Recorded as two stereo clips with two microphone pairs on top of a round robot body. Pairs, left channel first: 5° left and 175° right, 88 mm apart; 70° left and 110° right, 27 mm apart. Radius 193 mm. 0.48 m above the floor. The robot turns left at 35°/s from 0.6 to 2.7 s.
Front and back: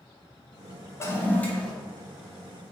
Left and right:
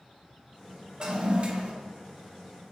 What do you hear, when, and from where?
1.0 s a toilet flushing: 50° right, 0.9 m; by 1.7 s 75° right, 0.9 m